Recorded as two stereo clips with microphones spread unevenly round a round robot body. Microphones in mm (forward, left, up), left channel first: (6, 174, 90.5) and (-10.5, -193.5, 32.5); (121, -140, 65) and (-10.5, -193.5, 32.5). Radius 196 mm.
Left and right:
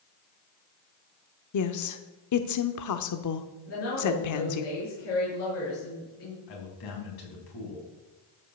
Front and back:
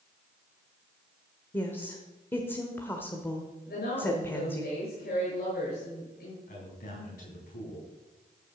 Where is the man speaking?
55° left, 4.5 m.